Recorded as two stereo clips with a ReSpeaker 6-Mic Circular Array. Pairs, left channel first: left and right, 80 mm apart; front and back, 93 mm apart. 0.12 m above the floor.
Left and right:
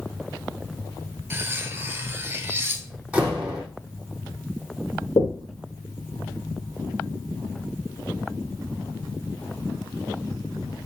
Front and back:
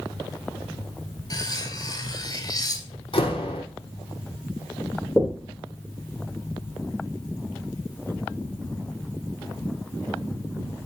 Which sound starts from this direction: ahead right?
Cutlery clinking, at 1.3 s.